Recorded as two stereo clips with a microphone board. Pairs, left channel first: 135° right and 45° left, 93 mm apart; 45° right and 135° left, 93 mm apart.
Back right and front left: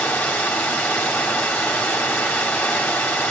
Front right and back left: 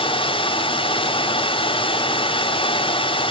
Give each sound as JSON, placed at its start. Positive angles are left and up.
{"t": 0.0, "sound": "running water", "azimuth_deg": -60, "distance_m": 3.0}